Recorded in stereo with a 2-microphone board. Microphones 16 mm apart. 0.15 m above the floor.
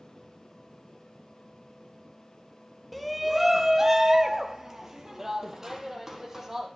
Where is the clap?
I don't hear a clap.